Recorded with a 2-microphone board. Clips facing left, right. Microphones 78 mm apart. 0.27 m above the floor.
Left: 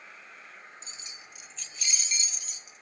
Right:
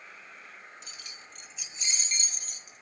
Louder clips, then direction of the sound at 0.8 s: Even; 30° left (ahead or behind).